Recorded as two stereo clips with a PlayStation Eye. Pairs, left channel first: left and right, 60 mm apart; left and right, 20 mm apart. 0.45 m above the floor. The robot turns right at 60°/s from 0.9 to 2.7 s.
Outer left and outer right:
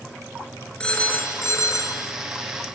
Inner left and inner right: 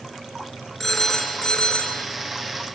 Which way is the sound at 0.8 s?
15° left.